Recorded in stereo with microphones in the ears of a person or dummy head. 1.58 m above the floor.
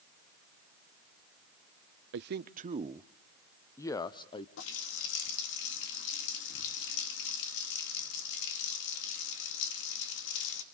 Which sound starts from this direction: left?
A running tap, at 4.6 s.